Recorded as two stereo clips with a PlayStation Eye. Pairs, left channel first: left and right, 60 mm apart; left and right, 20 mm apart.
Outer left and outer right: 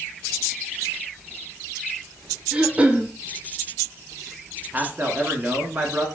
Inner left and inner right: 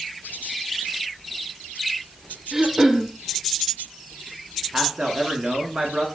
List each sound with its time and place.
2.5 s throat clearing: 20° right (ahead or behind), 0.7 m
4.7 s a man speaking: 30° right (ahead or behind), 1.3 m